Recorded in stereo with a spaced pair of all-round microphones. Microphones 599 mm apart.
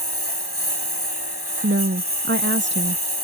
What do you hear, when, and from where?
0.0 s a lawn mower: 35° left (ahead or behind)
1.6 s a woman speaking: 20° right (ahead or behind)